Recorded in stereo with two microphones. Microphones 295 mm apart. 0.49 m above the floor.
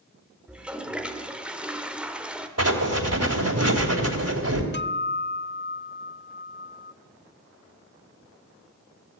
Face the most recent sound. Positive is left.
turn(degrees=40)  # may be behind; listen again after turning